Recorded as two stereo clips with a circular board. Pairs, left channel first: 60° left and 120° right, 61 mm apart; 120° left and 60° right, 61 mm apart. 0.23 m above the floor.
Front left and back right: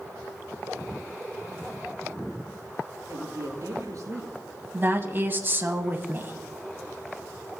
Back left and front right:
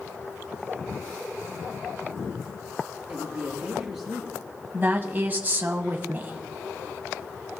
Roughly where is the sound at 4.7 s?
Right.